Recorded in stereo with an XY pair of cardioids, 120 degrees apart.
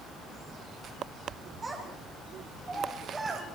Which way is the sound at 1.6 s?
20° right.